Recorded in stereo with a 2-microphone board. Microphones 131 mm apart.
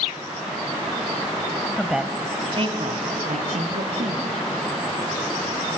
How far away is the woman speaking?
About 0.9 m.